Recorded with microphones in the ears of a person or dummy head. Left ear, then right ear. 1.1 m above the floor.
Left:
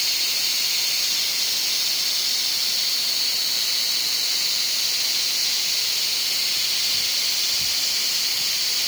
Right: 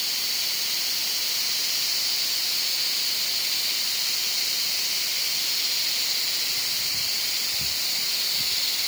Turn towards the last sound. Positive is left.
No sound to turn to.